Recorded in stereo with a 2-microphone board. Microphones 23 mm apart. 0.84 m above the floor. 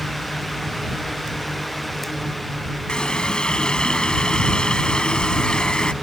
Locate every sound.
2.9 s a running tap: 40° left (ahead or behind)